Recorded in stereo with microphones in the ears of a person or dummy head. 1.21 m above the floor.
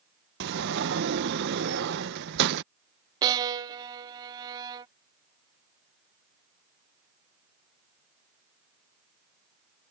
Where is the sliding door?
55° right (ahead or behind).